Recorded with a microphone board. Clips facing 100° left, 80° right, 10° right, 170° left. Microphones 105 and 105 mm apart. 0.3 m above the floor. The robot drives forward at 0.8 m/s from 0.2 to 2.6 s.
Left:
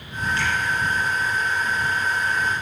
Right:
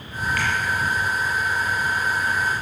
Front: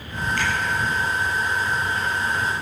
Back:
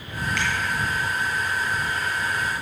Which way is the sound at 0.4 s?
165° left.